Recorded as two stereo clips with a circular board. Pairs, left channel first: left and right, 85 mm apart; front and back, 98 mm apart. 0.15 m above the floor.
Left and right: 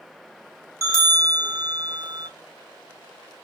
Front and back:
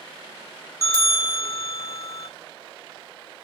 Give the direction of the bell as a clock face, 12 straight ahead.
8 o'clock.